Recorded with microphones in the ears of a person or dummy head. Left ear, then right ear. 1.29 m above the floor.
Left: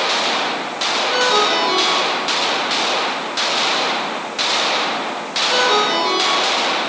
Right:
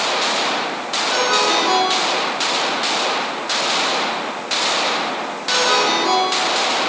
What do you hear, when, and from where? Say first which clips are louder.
1.1 s a ringtone: even; 40° right (ahead or behind), 8 m